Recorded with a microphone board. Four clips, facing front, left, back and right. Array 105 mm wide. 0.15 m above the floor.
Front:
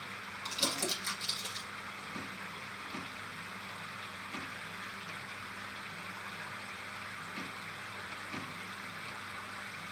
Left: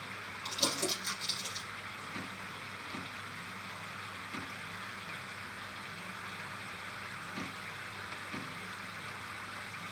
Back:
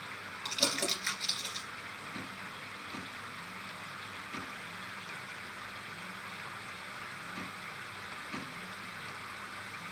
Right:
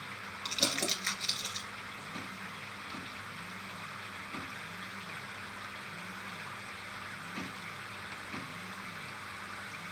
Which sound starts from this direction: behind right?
Crumpling, at 0.5 s.